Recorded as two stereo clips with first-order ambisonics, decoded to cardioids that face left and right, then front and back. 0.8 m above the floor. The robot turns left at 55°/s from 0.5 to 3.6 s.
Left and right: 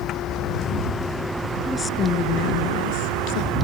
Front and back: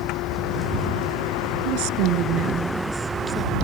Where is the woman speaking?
175° left; by 3.5 s 70° left.